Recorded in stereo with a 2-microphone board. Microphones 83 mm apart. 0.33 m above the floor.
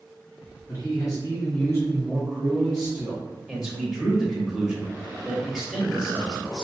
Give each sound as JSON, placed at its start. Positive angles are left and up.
{"t": 0.7, "sound": "a man speaking", "side_deg": 55, "distance_m": 1.7}
{"t": 3.5, "sound": "a man speaking", "side_deg": -10, "distance_m": 1.0}